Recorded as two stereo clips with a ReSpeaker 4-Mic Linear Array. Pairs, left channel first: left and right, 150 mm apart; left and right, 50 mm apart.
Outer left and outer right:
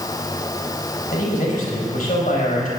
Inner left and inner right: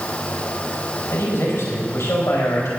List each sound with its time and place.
1.1 s a man speaking: 65° left (ahead or behind), 4.5 m